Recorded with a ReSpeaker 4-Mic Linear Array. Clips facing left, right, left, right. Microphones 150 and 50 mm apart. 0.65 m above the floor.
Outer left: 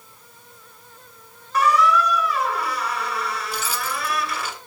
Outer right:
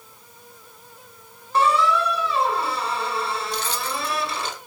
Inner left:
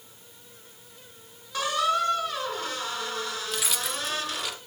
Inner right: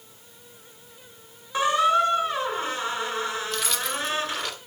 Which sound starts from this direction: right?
A squeak, at 1.5 s.